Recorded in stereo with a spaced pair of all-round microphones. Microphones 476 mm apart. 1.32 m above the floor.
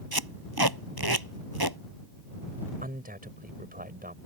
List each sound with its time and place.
0.1 s tape being pulled: 50° right (ahead or behind)
2.8 s a man speaking: 20° right (ahead or behind)